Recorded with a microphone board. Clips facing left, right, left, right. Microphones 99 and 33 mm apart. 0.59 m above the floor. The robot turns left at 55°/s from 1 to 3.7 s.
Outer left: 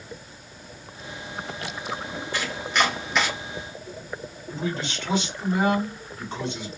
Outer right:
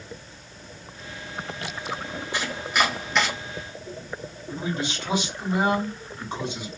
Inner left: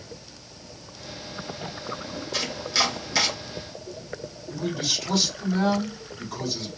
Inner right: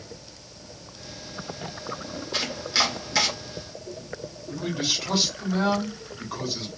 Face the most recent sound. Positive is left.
turn(degrees=-15)  # may be behind; listen again after turning